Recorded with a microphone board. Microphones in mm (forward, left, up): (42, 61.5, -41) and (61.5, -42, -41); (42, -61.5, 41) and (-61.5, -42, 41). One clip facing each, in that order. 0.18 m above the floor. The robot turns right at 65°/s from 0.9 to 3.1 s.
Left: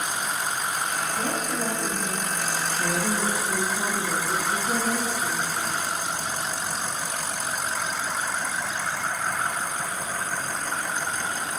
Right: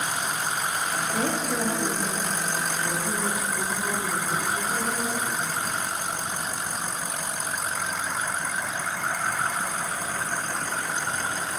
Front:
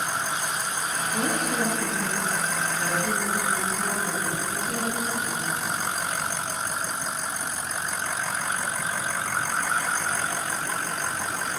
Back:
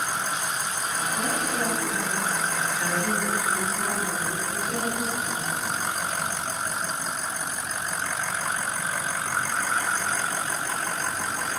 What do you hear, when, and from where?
1.1 s a woman speaking: 45° right, 3 m; by 5.5 s 80° left, 3 m